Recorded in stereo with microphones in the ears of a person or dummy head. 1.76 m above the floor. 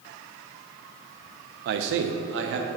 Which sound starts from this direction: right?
A man speaking, at 1.6 s.